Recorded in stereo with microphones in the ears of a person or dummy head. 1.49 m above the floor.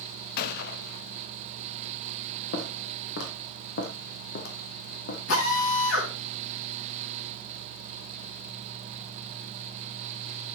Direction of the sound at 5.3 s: 85° left.